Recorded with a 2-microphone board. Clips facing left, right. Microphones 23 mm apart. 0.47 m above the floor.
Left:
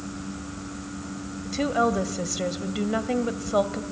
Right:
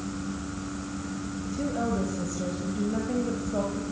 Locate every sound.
1.4 s a woman speaking: 70° left (ahead or behind), 1.8 m